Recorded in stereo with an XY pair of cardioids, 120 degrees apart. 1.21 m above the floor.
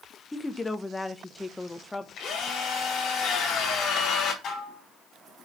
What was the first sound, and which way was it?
A woman speaking, 15° left.